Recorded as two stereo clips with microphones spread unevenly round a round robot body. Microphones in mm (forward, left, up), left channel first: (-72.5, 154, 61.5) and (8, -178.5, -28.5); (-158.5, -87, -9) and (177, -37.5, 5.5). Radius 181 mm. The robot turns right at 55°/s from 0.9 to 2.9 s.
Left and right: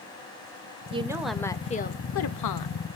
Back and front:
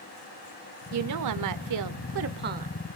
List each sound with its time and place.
0.9 s a woman speaking: 20° right, 1.3 m; by 2.8 s 80° left, 1.3 m